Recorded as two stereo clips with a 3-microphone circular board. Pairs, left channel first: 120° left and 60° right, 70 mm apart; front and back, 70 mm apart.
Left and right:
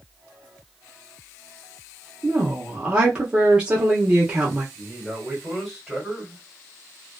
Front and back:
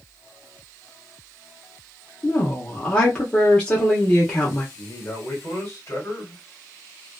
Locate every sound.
2.2 s a woman speaking: 30° right, 0.8 m
4.8 s a man speaking: 25° left, 1.5 m